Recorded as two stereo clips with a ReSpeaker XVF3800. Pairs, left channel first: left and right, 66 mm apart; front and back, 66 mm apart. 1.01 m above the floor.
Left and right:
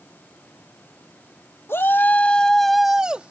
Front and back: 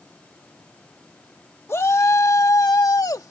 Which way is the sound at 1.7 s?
45° left.